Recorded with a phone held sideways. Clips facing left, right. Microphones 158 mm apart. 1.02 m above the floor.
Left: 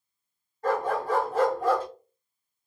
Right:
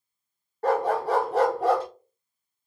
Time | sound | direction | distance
0.6 | a dog barking | 70° right (ahead or behind) | 1.5 m